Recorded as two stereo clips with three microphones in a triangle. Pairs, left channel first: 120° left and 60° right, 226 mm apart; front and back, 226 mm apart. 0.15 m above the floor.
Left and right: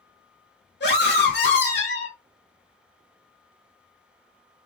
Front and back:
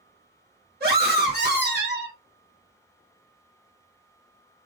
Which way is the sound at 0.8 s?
145° left.